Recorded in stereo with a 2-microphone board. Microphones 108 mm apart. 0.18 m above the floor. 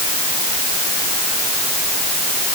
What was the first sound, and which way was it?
Only background noise.